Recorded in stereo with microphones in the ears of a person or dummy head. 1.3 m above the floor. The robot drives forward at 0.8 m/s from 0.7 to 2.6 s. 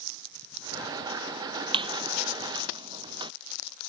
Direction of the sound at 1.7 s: 35° right (ahead or behind).